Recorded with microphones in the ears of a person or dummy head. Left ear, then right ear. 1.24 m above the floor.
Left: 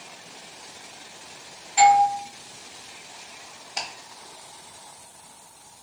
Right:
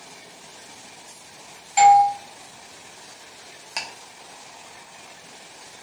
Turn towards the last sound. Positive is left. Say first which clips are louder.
# right 1 dB
turn(degrees=-45)  # may be behind; listen again after turning